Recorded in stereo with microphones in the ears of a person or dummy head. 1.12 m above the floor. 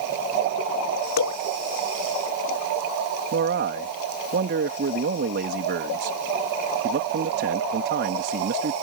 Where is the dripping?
75° left (ahead or behind).